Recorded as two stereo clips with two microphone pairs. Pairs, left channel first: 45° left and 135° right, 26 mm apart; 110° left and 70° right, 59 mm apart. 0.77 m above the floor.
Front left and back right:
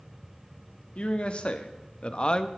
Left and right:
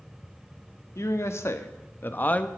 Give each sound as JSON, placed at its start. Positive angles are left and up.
{"t": 0.9, "sound": "a man speaking", "azimuth_deg": 80, "distance_m": 1.2}